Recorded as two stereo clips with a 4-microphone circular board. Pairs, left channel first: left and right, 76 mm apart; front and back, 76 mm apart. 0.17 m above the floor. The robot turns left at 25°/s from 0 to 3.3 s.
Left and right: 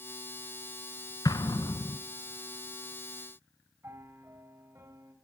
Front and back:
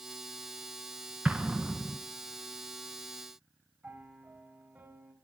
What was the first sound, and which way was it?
An explosion, 110° left.